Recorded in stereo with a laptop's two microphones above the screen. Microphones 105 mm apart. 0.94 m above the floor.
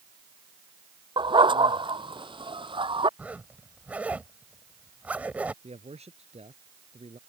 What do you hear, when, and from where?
1.2 s a dog barking: 50° right (ahead or behind); by 3.1 s 55° right (ahead or behind)
3.2 s a zipper: 15° right (ahead or behind)
5.6 s a man speaking: 90° right